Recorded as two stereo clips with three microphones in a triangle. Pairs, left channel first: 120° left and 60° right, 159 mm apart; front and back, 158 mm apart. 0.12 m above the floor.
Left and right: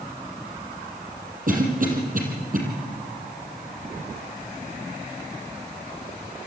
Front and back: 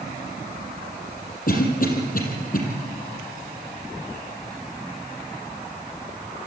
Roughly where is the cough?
Ahead right.